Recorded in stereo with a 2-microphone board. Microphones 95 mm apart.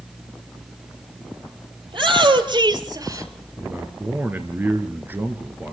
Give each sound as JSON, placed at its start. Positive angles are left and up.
{"t": 1.9, "sound": "a shout", "side_deg": -60, "distance_m": 3.0}
{"t": 3.6, "sound": "a man speaking", "side_deg": -20, "distance_m": 2.0}